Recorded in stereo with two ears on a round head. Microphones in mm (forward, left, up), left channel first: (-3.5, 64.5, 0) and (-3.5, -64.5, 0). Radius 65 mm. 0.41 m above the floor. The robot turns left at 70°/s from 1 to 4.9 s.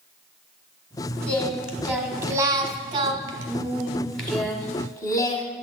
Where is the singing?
20° left, 1.2 m; by 5.5 s 125° left, 1.2 m.